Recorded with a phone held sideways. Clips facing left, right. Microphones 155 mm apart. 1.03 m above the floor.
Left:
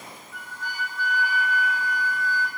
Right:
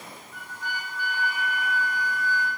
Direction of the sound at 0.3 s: 15° right (ahead or behind).